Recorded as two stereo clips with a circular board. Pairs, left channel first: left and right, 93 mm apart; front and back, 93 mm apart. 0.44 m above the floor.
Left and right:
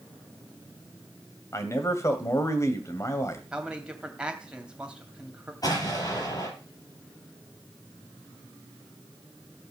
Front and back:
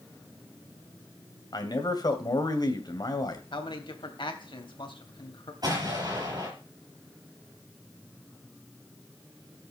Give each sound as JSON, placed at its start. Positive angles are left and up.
{"t": 1.5, "sound": "a man speaking", "azimuth_deg": 35, "distance_m": 2.0}
{"t": 3.5, "sound": "a man speaking", "azimuth_deg": -10, "distance_m": 3.0}
{"t": 5.6, "sound": "an explosion", "azimuth_deg": 135, "distance_m": 6.5}